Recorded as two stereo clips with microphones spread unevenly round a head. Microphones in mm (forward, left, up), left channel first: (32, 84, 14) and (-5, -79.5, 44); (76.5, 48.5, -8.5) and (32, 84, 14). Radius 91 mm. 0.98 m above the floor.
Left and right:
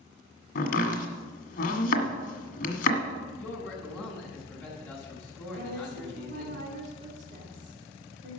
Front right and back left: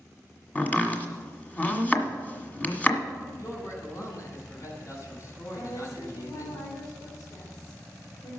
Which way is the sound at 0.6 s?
35° left.